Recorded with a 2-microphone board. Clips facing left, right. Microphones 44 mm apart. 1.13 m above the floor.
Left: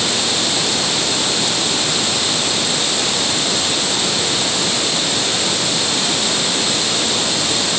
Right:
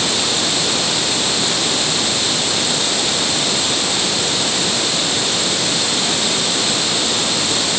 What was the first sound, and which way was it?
Only background noise.